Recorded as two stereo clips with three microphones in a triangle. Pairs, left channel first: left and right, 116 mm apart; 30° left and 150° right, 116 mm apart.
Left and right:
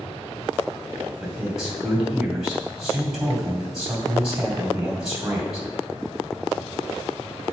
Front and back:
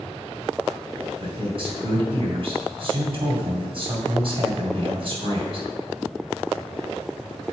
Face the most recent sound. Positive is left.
turn(degrees=-175)